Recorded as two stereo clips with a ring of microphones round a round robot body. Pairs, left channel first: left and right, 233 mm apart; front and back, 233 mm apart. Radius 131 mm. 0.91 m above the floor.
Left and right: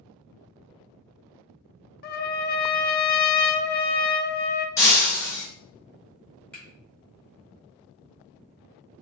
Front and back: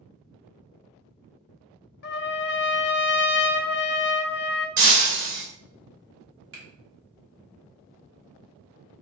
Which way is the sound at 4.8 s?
170° left.